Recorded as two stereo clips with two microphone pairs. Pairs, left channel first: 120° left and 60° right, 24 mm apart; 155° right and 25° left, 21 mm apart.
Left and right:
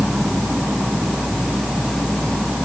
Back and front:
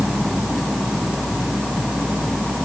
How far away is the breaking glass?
No breaking glass in this recording.